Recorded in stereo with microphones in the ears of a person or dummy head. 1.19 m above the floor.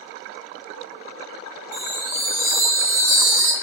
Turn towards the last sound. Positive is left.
turn(degrees=-85)